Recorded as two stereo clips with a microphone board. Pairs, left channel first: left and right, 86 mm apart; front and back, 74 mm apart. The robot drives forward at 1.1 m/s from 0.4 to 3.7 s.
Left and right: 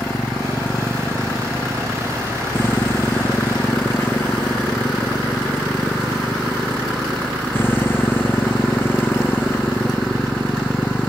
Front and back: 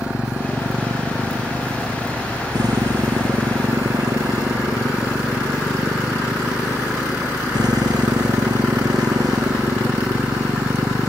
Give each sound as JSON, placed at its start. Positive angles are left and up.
{"t": 0.0, "sound": "a motorcycle", "azimuth_deg": 150}